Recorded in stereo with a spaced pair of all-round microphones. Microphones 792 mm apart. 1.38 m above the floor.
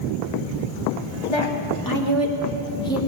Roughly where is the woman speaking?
Left.